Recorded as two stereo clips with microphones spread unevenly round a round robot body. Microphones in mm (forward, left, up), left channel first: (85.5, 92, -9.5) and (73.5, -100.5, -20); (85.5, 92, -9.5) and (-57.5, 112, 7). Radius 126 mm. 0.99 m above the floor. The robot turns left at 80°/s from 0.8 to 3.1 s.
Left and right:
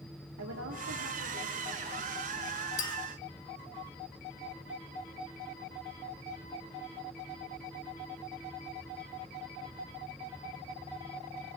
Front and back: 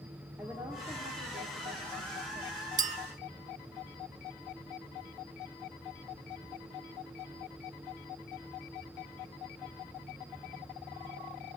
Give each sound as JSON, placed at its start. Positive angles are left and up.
{"t": 0.4, "sound": "a woman speaking", "azimuth_deg": -110, "distance_m": 2.5}
{"t": 2.8, "sound": "a clink", "azimuth_deg": 145, "distance_m": 1.4}